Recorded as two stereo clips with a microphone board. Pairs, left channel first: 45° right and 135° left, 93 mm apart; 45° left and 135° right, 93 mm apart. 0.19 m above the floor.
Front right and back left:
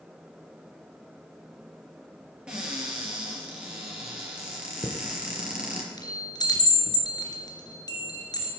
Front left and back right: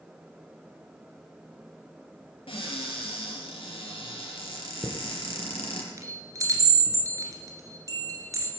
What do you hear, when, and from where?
2.5 s a cupboard door: 55° left, 4.5 m
4.8 s a chime: 85° right, 2.5 m